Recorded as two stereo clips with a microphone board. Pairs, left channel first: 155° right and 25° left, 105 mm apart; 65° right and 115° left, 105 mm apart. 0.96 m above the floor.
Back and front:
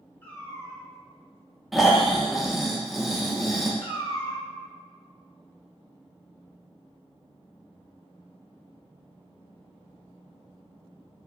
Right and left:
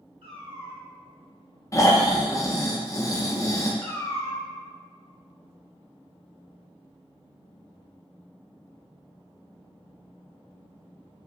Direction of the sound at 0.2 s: 125° left.